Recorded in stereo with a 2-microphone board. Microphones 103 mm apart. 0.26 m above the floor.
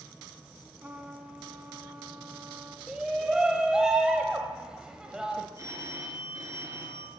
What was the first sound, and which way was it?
A trumpet, 15° right (ahead or behind).